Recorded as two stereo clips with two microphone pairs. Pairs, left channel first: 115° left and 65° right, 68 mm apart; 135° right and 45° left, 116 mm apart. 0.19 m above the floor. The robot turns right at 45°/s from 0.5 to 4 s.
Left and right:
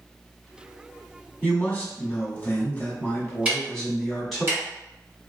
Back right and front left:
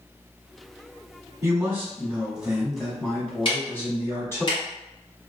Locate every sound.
1.4 s a man speaking: 80° left, 1.1 m; by 4.5 s 160° right, 1.1 m
3.5 s ticking: 130° right, 1.4 m; by 5.3 s 105° right, 1.4 m